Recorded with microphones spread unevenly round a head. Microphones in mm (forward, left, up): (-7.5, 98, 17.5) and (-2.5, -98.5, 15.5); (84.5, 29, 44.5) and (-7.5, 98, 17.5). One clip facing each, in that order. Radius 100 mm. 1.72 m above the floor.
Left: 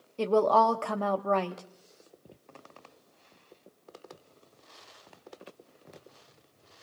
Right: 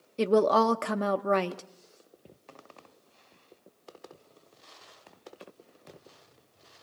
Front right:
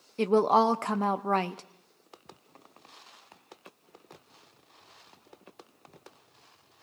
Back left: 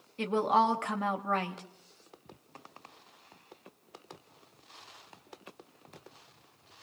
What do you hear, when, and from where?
0.2 s a woman speaking: 30° right, 0.6 m